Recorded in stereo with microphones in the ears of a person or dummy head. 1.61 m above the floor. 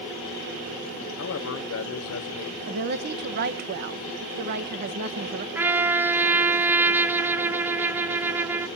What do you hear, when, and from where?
1.2 s a man speaking: 75° left (ahead or behind), 0.9 m
2.7 s a woman speaking: 45° right (ahead or behind), 1.4 m
5.5 s a trumpet: 15° right (ahead or behind), 0.6 m